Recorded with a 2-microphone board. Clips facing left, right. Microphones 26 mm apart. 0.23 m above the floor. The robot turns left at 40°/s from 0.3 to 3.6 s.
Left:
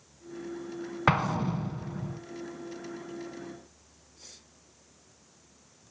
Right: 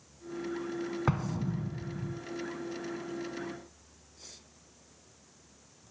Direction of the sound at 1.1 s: 110° left.